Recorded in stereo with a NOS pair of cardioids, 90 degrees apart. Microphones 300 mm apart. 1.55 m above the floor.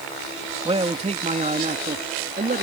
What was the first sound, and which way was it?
A man speaking, 20° right.